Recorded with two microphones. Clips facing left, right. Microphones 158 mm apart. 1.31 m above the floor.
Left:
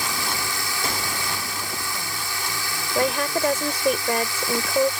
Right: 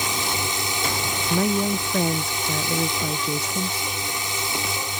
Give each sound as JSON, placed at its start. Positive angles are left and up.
{"t": 0.0, "sound": "a drone", "side_deg": -20}
{"t": 1.3, "sound": "a woman speaking", "side_deg": -80}
{"t": 3.0, "sound": "a woman speaking", "side_deg": 85}